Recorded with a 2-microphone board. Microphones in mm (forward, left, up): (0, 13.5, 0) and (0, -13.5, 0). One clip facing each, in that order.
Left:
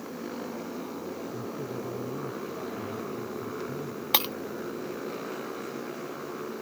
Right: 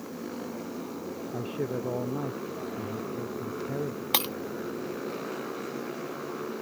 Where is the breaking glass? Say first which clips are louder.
Left 1 dB; 5° left (ahead or behind).